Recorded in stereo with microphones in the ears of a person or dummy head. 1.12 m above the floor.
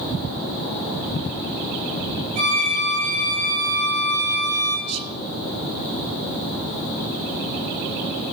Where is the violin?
60° right (ahead or behind), 5 m.